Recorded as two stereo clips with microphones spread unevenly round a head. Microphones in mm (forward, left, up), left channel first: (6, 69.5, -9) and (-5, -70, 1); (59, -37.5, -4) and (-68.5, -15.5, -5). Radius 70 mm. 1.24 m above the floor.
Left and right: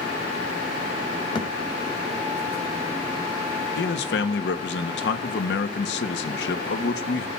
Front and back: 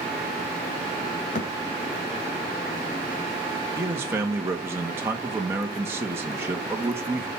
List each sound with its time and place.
1.4 s a thud: 30° left, 2 m
3.8 s a man speaking: 95° left, 1.8 m